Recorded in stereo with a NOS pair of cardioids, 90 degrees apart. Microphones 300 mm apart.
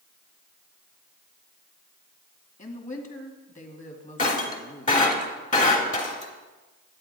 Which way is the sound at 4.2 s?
25° left.